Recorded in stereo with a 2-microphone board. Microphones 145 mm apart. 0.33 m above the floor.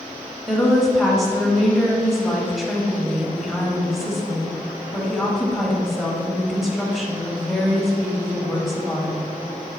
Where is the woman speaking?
Centre (ahead or behind), 1.4 m.